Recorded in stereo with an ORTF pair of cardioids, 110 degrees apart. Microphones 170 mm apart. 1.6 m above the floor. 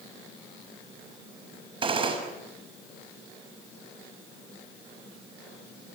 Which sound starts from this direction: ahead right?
A gunshot, at 1.8 s.